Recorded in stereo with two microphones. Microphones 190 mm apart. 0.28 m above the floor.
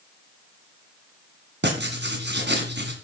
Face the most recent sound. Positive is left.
turn(degrees=-65)  # may be behind; listen again after turning